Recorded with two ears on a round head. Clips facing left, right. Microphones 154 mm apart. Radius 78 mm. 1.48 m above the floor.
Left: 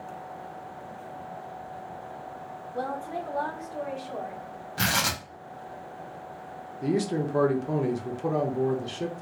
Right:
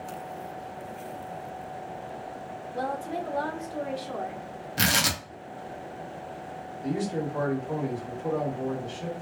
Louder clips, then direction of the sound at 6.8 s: Left 3 dB; 70° left (ahead or behind).